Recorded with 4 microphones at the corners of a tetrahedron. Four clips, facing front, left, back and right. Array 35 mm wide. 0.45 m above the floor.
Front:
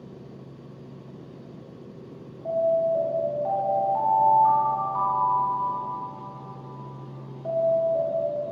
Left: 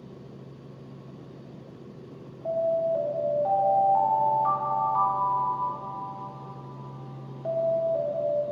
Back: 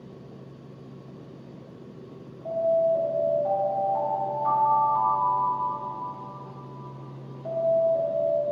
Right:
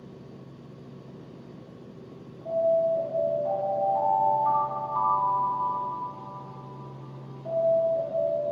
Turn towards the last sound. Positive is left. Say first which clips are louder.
# right 2 dB, even
turn(degrees=75)